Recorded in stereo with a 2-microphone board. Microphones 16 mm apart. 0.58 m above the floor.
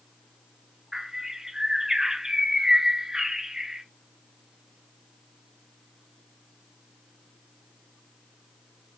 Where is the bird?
40° right (ahead or behind), 1.8 m.